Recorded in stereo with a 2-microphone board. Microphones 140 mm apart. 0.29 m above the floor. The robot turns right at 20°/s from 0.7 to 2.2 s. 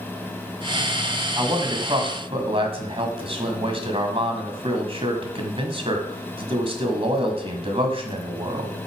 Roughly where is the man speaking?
Right.